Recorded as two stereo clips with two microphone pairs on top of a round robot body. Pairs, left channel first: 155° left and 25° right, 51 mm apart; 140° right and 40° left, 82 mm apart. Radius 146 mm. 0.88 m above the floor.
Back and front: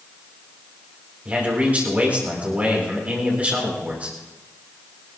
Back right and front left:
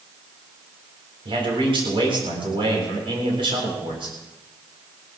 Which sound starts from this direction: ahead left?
A man speaking, at 1.2 s.